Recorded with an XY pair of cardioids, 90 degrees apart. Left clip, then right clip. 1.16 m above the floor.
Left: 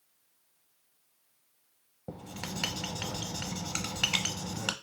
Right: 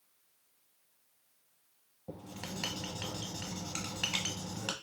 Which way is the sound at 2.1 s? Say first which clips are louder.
Left 4 dB; 45° left.